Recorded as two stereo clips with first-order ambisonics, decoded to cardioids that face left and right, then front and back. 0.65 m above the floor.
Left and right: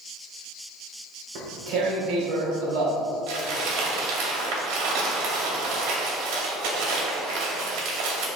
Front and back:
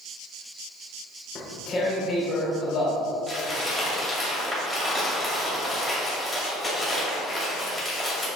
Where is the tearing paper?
70° right, 1.9 m.